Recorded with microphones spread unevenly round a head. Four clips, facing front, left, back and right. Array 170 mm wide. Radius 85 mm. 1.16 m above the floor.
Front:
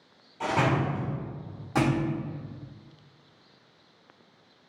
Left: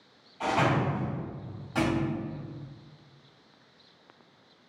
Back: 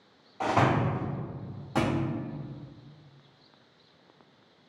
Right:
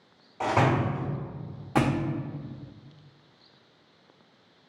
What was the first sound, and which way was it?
A door slam, 120° right.